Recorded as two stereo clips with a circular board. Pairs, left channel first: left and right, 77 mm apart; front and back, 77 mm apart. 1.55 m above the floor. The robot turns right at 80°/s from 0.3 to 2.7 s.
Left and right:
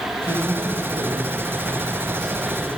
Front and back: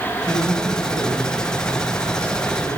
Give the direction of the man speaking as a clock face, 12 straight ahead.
8 o'clock.